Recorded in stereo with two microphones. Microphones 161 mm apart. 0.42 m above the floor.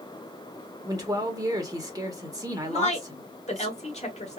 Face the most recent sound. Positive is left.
turn(degrees=45)  # may be behind; listen again after turning